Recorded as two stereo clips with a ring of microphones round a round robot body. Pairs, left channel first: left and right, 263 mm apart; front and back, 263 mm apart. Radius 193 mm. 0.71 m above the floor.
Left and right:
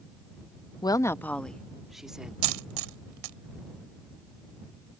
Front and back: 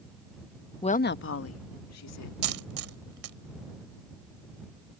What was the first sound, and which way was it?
A woman speaking, 35° left.